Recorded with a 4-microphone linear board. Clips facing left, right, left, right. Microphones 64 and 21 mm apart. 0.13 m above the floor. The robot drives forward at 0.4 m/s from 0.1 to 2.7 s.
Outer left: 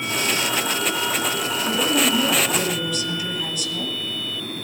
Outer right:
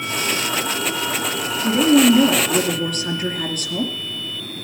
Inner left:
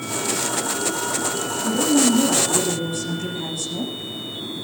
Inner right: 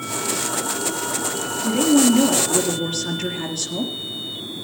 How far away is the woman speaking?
About 2.5 m.